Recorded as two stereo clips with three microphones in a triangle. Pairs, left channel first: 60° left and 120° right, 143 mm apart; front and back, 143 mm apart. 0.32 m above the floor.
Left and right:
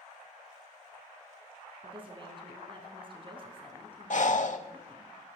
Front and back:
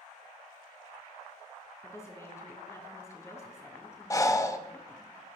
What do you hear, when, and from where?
1.8 s a woman speaking: 70° right, 3.5 m
4.1 s breathing: 65° left, 0.8 m